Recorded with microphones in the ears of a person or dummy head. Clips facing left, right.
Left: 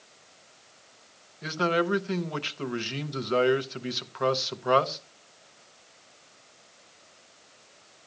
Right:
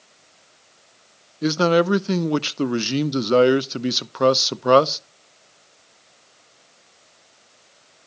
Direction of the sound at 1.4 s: 65° right (ahead or behind).